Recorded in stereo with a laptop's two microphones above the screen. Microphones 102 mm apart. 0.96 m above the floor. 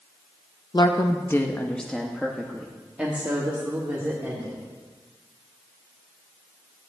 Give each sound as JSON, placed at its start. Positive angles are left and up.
{"t": 0.7, "sound": "a woman speaking", "side_deg": 45, "distance_m": 0.9}